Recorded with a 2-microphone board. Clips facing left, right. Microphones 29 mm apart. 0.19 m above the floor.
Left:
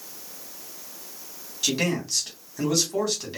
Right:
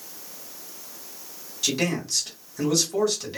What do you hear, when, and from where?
1.6 s a man speaking: 10° left (ahead or behind), 1.3 m